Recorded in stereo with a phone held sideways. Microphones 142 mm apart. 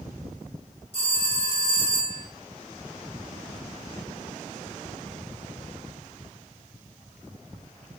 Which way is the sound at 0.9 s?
45° right (ahead or behind).